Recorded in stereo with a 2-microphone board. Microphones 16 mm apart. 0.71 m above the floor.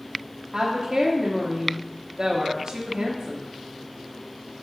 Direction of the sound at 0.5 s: 55° right (ahead or behind).